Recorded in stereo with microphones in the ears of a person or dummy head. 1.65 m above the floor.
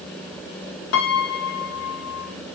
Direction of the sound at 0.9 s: 60° left (ahead or behind).